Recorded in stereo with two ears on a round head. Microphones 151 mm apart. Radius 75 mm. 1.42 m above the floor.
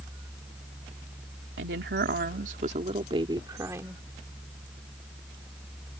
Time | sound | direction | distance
1.6 | a woman speaking | 75° right (ahead or behind) | ?